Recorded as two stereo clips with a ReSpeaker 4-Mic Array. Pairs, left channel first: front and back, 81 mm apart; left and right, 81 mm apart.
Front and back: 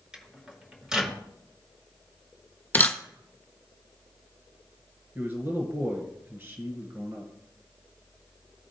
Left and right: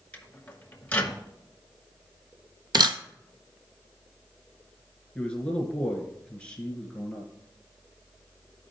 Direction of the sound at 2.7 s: 65° right.